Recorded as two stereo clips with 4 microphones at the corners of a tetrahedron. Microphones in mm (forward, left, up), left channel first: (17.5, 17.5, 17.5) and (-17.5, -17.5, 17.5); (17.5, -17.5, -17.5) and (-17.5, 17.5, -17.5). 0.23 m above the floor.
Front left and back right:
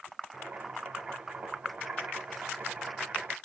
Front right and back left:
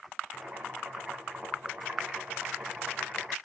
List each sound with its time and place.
0.3 s boiling: 175° right, 1.5 m